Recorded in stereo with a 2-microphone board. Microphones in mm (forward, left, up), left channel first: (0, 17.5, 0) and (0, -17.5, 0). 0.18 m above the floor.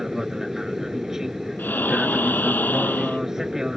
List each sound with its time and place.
0.0 s an aircraft: 15° right (ahead or behind)
1.6 s breathing: 80° left